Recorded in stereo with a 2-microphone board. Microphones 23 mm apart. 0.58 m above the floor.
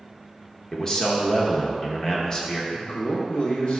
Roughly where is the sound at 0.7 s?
Left.